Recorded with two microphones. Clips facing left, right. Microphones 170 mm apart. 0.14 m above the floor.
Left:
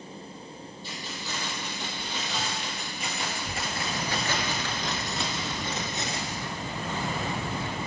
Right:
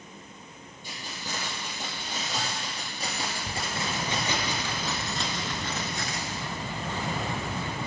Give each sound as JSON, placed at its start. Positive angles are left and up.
{"t": 0.8, "sound": "keys jangling", "side_deg": -50, "distance_m": 3.0}